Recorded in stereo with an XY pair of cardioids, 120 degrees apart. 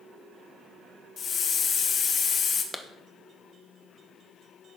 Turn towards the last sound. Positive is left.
turn(degrees=10)